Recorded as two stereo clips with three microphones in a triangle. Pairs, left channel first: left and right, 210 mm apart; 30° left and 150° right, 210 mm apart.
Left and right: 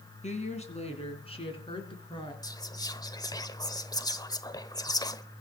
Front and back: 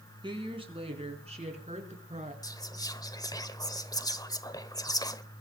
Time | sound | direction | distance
0.2 | a woman speaking | 145° left | 4 m
2.4 | whispering | 60° left | 1.0 m